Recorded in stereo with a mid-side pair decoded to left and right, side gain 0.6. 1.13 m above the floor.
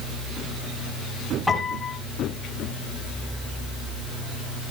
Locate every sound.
1.5 s a piano: 5° left, 5 m